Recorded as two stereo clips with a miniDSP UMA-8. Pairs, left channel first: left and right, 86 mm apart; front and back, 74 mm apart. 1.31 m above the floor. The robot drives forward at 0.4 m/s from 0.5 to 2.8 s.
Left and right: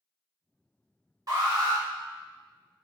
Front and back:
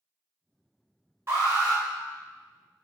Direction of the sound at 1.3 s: 130° right.